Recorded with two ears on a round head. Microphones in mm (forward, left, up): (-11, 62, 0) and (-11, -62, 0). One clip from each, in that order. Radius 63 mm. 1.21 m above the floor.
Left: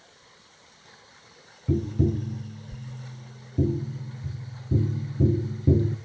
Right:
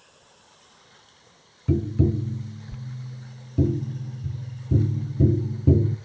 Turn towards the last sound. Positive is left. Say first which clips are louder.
# right 2 dB
turn(degrees=-80)